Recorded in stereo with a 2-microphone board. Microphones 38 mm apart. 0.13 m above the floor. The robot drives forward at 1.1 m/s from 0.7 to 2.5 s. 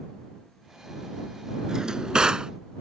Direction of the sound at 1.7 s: 20° right (ahead or behind).